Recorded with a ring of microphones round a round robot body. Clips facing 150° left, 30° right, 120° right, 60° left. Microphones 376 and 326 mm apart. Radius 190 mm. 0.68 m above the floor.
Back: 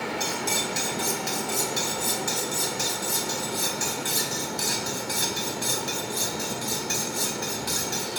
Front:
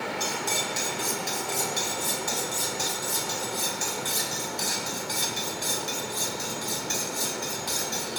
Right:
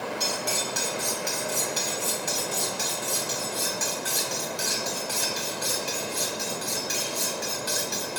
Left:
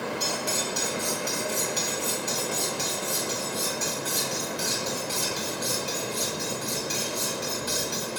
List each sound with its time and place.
0.2 s cutlery clinking: 140° right, 2.5 m